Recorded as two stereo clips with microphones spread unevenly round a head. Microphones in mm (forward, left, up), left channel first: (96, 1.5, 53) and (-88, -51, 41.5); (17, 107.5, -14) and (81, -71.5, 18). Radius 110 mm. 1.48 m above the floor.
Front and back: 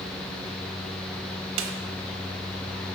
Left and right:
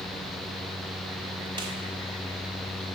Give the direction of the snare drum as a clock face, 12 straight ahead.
5 o'clock.